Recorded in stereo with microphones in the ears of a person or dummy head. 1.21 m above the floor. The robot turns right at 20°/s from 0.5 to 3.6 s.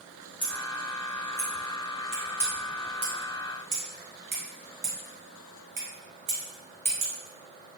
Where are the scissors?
25° left (ahead or behind), 1.5 m; by 7.1 s 30° right (ahead or behind), 1.5 m.